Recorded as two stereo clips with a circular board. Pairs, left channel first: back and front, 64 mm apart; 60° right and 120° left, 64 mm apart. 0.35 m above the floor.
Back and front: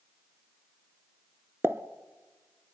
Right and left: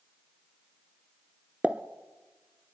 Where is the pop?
50° left, 0.8 m.